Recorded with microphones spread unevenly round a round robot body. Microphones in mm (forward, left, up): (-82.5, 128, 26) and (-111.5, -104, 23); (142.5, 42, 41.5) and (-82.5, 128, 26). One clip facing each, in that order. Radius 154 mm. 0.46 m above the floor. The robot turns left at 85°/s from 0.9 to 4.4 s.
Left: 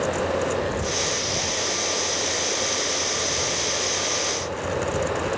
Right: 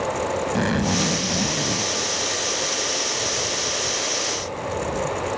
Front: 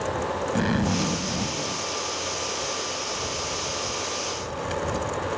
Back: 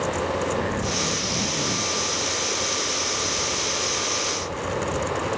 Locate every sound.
0.6 s a zipper: 70° right; by 5.1 s 10° right